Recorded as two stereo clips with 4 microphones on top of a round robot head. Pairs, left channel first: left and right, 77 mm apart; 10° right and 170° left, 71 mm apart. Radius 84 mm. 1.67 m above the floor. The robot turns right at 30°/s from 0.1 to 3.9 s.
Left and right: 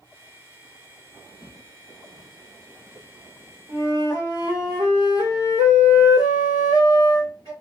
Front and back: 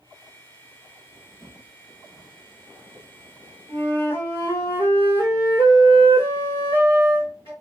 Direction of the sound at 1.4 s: 60° right.